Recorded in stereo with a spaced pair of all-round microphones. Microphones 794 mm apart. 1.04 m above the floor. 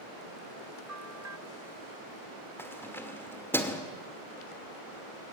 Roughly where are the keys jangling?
Centre.